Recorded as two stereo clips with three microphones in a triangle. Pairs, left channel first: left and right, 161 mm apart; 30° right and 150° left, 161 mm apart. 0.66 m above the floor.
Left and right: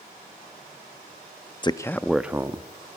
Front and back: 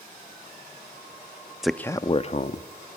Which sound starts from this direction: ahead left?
A man speaking, at 1.6 s.